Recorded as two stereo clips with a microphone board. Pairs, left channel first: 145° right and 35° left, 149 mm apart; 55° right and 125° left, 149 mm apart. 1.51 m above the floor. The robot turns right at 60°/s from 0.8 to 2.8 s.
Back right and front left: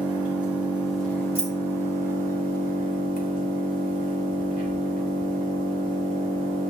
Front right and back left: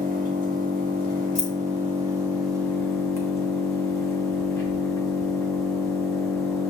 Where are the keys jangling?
165° left, 1.9 m; by 1.5 s 175° left, 1.9 m.